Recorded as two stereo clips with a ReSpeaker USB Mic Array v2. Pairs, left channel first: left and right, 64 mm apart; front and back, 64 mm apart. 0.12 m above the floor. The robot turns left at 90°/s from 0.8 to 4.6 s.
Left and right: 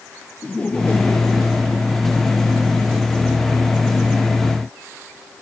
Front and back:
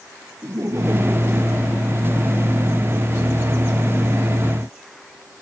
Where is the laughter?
155° left; by 2.8 s 20° right.